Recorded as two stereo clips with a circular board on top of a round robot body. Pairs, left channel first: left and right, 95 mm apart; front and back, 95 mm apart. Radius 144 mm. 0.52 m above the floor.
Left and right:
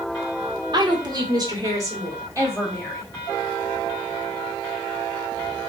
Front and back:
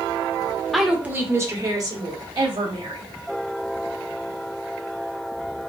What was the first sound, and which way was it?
A woman speaking, 90° right.